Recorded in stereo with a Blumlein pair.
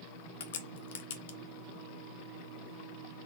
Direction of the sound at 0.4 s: 60° left.